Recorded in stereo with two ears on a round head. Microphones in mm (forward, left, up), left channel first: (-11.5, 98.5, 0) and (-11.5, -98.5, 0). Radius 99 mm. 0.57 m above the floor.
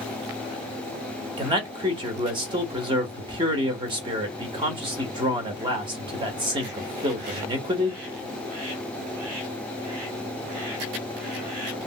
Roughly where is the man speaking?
Right.